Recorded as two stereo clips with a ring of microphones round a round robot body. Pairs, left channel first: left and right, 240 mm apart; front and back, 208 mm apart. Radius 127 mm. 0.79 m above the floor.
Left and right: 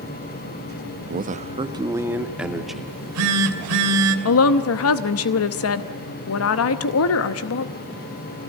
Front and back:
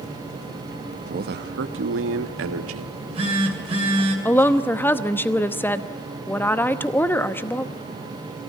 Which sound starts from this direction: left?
A woman speaking, at 4.2 s.